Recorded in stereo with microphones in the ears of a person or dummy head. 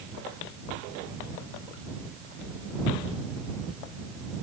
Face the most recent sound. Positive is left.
No sound to turn to.